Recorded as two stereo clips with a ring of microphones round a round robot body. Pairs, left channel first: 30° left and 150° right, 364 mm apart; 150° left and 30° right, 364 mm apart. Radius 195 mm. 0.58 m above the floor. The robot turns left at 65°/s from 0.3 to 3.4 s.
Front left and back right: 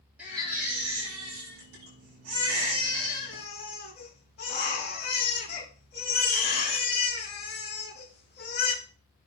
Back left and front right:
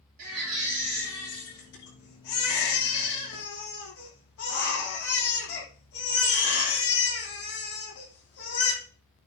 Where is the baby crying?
65° right, 9 m; by 8.7 s 95° left, 9 m.